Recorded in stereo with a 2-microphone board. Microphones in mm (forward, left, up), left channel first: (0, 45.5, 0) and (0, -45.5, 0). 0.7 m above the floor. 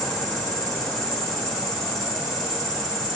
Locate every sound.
0.0 s an insect: centre (ahead or behind), 3 m